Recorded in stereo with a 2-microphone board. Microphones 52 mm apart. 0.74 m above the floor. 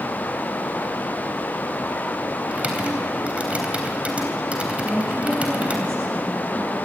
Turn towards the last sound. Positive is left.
turn(degrees=-15)  # may be behind; listen again after turning